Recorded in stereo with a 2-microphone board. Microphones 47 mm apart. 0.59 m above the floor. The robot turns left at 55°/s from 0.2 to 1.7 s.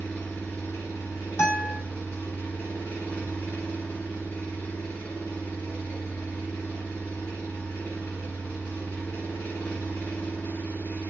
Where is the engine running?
135° left, 1.2 m; by 11.1 s 50° left, 1.2 m.